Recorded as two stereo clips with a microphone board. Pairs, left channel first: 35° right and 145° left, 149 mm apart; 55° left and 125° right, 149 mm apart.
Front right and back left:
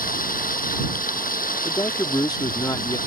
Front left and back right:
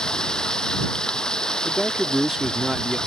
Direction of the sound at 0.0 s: 30° right.